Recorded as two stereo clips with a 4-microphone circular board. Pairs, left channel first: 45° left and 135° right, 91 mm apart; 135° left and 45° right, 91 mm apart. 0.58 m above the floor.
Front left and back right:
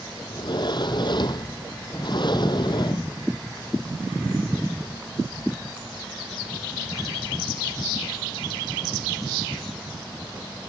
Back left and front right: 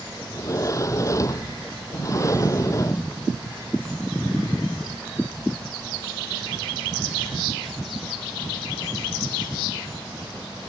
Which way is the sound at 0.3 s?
80° left.